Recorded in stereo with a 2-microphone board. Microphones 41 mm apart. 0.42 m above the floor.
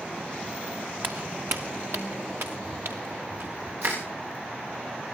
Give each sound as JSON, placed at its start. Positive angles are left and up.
{"t": 1.0, "sound": "footsteps", "side_deg": -60, "distance_m": 1.1}
{"t": 3.8, "sound": "crushing", "side_deg": -65, "distance_m": 9.0}